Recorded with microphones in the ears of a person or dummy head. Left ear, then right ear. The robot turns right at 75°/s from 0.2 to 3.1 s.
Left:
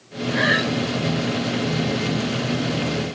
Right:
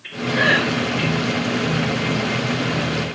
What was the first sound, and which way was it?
Breathing, 5° right (ahead or behind).